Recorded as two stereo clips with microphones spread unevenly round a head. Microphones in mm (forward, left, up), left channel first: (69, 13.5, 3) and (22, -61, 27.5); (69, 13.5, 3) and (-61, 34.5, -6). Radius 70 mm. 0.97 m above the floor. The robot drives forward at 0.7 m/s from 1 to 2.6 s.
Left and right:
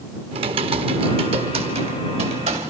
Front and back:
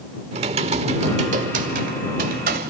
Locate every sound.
0.3 s typing on a keyboard: 140° right, 1.2 m; by 2.7 s 160° right, 2 m